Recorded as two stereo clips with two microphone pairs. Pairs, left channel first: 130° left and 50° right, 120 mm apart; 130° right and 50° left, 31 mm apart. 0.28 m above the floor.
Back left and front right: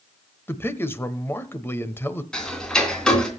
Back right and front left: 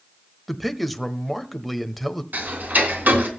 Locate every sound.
0.5 s a man speaking: 140° left, 1.0 m
2.3 s ticking: 50° left, 3 m